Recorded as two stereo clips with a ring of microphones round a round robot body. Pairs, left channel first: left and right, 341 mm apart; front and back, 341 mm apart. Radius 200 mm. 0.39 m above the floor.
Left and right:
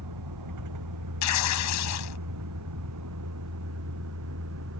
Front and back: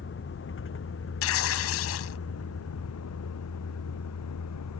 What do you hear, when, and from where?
0.0 s a vehicle: 55° right; by 4.8 s 35° right
1.2 s tearing paper: 50° left